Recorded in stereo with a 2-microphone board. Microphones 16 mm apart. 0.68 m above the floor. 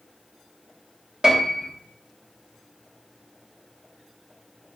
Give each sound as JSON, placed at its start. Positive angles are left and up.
{"t": 1.2, "sound": "a piano", "side_deg": -40, "distance_m": 1.1}